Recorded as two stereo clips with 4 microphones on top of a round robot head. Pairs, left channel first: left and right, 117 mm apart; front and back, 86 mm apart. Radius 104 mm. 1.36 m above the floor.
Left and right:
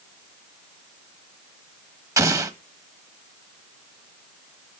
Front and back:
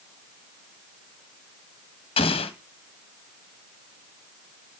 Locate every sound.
2.2 s an explosion: 25° right, 1.4 m